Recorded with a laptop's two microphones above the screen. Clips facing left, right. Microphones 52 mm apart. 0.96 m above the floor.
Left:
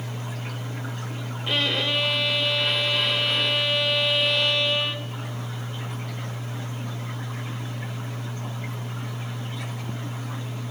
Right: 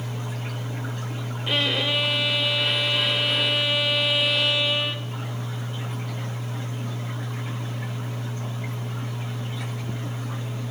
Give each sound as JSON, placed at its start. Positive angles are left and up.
{"t": 1.5, "sound": "a violin", "side_deg": -5, "distance_m": 0.7}